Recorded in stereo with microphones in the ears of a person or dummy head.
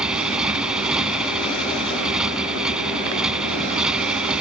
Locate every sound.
0.0 s a motorcycle: 5° right (ahead or behind)